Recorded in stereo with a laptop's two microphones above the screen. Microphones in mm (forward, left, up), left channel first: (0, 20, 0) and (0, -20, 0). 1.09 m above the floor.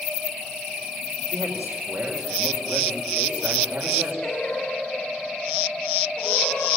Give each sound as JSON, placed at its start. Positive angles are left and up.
{"t": 1.3, "sound": "a man speaking", "side_deg": -60, "distance_m": 4.5}
{"t": 4.2, "sound": "singing", "side_deg": 20, "distance_m": 8.0}